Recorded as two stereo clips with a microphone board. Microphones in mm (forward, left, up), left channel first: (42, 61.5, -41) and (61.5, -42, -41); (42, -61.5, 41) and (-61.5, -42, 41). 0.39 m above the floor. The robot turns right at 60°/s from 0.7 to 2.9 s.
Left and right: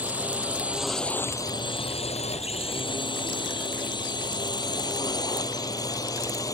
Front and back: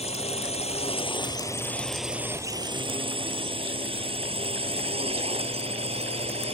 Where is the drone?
5° right; by 6.5 s 155° left.